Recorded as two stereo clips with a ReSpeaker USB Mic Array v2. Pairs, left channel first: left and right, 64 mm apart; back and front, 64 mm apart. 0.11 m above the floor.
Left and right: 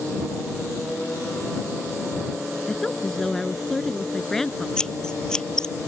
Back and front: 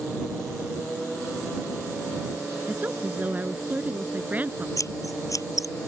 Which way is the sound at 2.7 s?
15° left.